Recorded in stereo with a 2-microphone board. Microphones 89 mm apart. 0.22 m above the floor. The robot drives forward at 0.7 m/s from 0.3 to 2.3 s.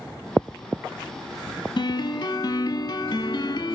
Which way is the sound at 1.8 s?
55° left (ahead or behind).